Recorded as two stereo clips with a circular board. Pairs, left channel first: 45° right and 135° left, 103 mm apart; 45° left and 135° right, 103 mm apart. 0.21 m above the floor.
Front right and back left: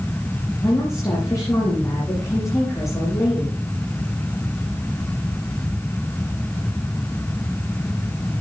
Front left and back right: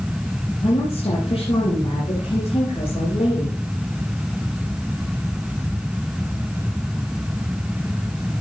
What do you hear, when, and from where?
0.6 s a woman speaking: 15° left, 6 m